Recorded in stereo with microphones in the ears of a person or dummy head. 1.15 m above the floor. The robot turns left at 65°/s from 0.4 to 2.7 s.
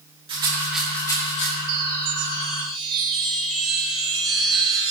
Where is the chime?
80° right, 3.5 m; by 4.9 s 145° right, 3.5 m.